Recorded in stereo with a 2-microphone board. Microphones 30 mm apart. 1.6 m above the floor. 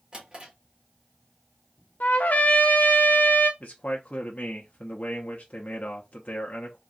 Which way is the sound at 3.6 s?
50° left (ahead or behind).